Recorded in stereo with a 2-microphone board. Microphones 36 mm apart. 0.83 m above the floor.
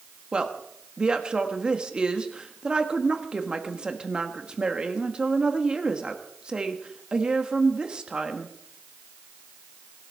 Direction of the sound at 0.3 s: 25° right (ahead or behind).